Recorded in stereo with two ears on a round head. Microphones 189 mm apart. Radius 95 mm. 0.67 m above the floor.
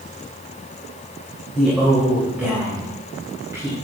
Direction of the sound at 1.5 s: Centre (ahead or behind).